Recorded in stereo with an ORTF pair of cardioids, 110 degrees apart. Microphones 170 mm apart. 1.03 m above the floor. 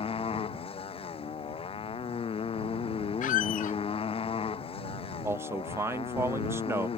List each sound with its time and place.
0.0 s a motorcycle: 35° left
3.2 s a squeak: 50° left
5.2 s a man speaking: 15° right